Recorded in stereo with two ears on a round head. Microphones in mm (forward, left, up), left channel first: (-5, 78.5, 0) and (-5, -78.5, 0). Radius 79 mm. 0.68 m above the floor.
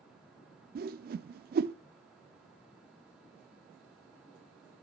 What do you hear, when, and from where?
0.8 s a whoosh: 55° right (ahead or behind), 0.5 m